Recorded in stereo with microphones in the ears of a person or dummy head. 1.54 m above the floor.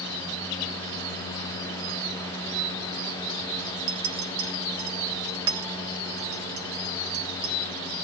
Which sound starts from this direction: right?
A clink, at 3.9 s.